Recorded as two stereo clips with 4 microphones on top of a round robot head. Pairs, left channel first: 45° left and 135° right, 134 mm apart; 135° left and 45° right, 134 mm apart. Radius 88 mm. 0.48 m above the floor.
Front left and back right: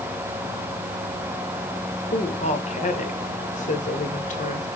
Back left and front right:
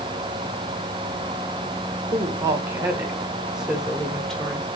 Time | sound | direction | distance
2.1 | a woman speaking | 15° left | 1.9 m